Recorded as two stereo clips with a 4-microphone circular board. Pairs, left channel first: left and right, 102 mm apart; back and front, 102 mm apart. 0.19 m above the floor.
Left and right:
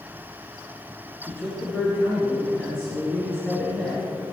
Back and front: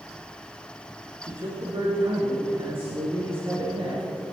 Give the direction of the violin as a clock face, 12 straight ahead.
I don't hear a violin.